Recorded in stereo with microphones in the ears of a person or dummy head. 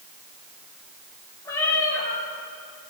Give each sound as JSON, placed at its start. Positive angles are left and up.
{"t": 1.4, "sound": "a cat meowing", "side_deg": 15, "distance_m": 3.5}